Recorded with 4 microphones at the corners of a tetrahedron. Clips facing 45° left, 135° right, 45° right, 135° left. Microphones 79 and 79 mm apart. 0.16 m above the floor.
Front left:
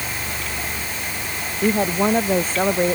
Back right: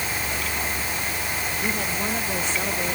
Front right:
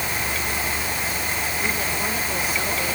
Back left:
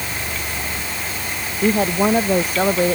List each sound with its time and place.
1.6 s a woman speaking: 90° left